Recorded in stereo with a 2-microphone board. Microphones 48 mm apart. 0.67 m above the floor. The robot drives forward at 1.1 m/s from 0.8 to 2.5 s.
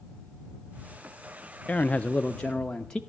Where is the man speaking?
30° left (ahead or behind), 0.5 m; by 3.0 s 15° left (ahead or behind), 1.0 m.